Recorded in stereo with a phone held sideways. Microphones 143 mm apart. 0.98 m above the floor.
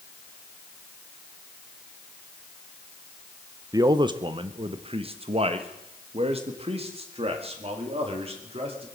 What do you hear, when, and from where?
3.7 s a man speaking: 25° right (ahead or behind), 0.7 m; by 8.8 s 45° right (ahead or behind), 3 m